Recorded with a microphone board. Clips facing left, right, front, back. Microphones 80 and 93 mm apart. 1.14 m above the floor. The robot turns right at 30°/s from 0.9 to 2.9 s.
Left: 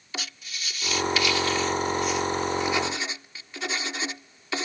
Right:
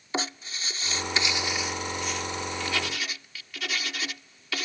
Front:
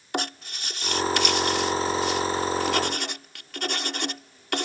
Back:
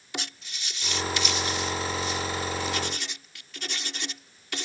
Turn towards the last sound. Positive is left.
turn(degrees=25)